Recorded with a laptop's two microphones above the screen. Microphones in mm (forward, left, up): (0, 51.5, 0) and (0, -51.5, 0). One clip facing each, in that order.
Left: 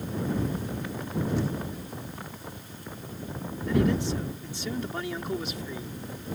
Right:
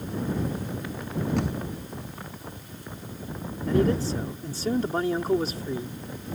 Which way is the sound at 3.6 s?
40° right (ahead or behind).